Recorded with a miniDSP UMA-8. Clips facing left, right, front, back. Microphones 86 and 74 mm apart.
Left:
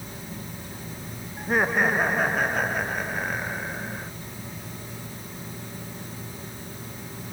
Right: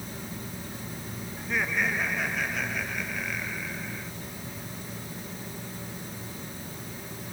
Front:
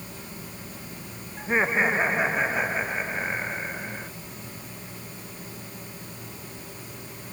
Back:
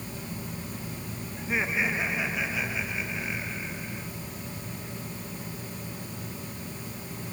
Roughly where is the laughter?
Ahead left.